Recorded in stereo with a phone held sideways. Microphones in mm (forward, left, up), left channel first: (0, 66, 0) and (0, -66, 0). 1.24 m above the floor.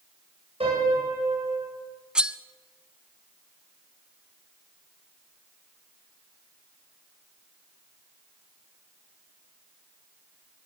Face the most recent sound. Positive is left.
turn(degrees=-5)  # may be behind; listen again after turning